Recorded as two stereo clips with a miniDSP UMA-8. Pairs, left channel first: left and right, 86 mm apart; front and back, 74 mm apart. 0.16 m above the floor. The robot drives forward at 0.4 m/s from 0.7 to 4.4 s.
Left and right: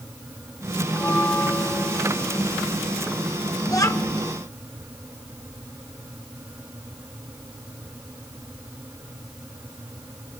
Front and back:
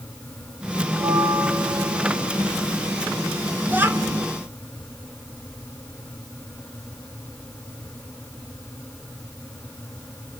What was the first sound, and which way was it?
A bell, 155° left.